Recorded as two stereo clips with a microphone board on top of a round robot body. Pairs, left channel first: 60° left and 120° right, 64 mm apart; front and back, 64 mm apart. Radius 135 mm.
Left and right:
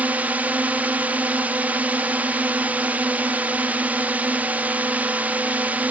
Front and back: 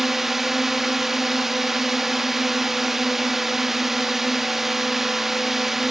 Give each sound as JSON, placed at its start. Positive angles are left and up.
{"t": 0.0, "sound": "a drone", "azimuth_deg": -100}